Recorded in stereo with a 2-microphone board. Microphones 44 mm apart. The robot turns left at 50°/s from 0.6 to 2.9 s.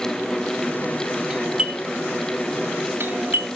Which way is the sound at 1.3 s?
10° right (ahead or behind).